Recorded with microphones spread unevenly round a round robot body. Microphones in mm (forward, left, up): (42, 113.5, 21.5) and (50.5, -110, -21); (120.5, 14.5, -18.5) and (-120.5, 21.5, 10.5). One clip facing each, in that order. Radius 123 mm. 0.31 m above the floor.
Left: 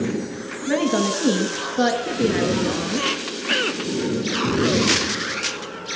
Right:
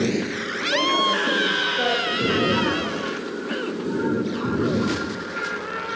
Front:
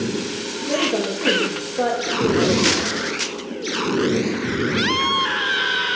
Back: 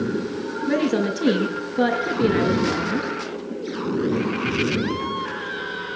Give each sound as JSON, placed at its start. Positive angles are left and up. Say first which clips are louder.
{"t": 0.7, "sound": "a woman speaking", "louder": "left 6 dB, back 2 dB", "azimuth_deg": 120, "distance_m": 6.0}